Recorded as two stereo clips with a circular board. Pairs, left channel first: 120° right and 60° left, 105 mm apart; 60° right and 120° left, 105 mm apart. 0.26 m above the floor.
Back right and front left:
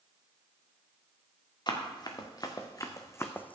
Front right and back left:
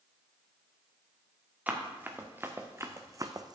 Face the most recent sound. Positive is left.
turn(degrees=165)